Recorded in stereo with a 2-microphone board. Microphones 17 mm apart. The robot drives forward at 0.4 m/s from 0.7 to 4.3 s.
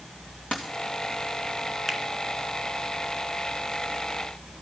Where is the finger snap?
15° left (ahead or behind), 1.4 m.